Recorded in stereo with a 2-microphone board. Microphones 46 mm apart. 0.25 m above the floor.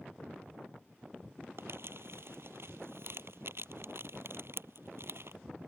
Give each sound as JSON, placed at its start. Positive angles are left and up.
{"t": 1.6, "sound": "crumpling", "side_deg": -60}